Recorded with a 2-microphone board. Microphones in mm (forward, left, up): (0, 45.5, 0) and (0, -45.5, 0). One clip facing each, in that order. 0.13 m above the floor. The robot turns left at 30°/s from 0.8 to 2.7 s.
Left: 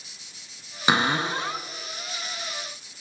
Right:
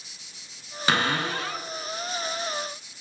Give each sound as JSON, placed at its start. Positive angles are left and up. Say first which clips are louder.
{"t": 0.9, "sound": "a cupboard door", "louder": "left 2 dB", "side_deg": 20, "distance_m": 1.2}